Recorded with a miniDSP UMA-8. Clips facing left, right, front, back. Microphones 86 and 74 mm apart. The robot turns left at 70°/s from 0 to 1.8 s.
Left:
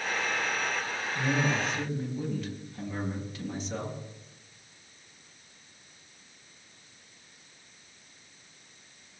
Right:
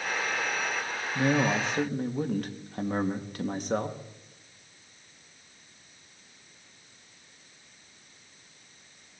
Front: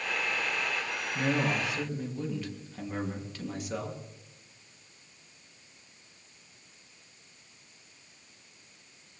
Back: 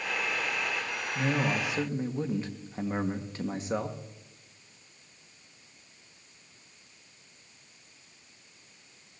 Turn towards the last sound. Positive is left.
turn(degrees=-125)